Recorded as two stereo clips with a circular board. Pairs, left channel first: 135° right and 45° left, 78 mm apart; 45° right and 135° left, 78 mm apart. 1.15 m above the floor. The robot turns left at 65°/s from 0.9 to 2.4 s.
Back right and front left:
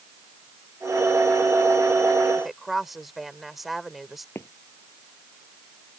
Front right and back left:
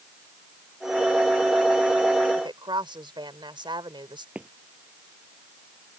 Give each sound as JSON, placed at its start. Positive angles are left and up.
{"t": 2.4, "sound": "a woman speaking", "azimuth_deg": 135}
{"t": 4.3, "sound": "footsteps", "azimuth_deg": -160}